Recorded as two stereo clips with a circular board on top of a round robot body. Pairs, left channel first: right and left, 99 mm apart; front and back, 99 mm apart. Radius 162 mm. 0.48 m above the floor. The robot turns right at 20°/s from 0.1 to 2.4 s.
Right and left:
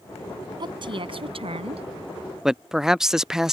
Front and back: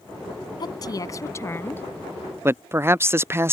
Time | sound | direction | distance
0.6 | a woman speaking | 45° left | ?
2.5 | a man speaking | 170° left | ?